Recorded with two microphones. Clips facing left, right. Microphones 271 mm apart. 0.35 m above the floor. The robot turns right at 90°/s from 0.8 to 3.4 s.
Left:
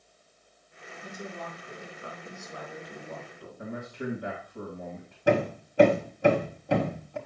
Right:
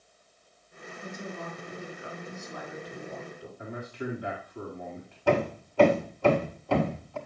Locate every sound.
1.0 s a woman speaking: 110° right, 5 m; by 3.5 s 105° left, 5 m
3.6 s a man speaking: 50° left (ahead or behind), 2 m
5.3 s hammering: 20° left (ahead or behind), 1.4 m